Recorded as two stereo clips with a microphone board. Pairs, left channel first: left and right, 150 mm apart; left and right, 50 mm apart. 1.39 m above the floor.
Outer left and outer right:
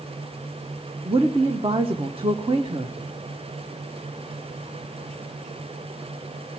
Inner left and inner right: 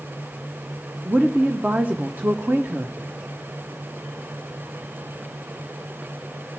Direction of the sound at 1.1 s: 35° right (ahead or behind).